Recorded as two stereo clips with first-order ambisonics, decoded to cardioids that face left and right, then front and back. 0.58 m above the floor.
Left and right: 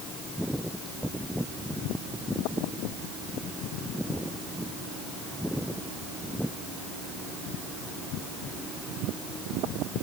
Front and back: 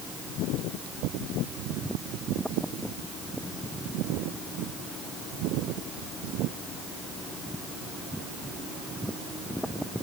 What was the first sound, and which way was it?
Only background noise.